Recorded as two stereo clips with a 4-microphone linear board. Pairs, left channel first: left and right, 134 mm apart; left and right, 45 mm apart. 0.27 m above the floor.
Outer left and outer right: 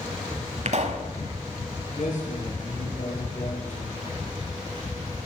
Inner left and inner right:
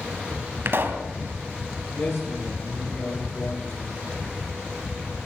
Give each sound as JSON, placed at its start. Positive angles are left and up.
{"t": 0.7, "sound": "a pop", "side_deg": -55, "distance_m": 1.1}
{"t": 2.0, "sound": "a man speaking", "side_deg": 60, "distance_m": 6.0}